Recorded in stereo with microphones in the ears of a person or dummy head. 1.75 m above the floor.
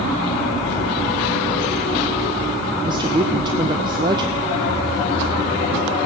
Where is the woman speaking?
15° right (ahead or behind), 0.7 m.